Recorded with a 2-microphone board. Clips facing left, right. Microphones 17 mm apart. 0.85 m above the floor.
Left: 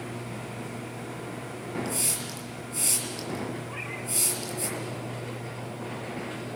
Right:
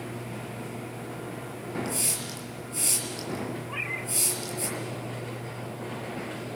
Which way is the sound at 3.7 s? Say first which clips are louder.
Right 3 dB; 25° right (ahead or behind).